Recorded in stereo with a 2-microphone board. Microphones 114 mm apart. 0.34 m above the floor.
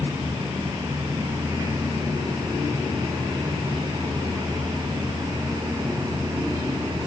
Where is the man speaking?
No man speaking in this recording.